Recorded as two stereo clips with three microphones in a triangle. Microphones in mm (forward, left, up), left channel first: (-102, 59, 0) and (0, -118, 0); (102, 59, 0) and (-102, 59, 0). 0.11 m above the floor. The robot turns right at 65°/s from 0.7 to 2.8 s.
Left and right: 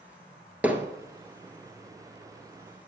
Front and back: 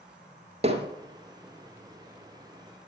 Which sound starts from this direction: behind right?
Hammering, at 0.6 s.